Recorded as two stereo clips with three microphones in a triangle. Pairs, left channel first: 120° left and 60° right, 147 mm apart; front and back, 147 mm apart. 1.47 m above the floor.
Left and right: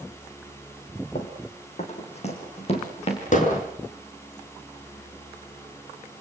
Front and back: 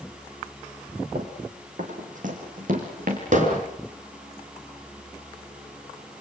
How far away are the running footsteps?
About 4.5 m.